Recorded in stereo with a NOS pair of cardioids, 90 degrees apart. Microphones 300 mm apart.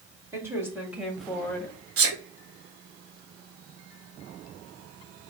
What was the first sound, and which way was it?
A woman speaking, 10° right.